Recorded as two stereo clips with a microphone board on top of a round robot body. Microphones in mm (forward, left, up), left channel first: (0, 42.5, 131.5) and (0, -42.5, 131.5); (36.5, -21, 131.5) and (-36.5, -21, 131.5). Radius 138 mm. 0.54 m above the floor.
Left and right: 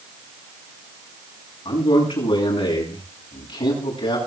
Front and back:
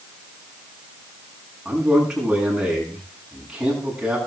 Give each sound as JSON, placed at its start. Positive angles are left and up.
{"t": 1.6, "sound": "a man speaking", "azimuth_deg": 100, "distance_m": 8.0}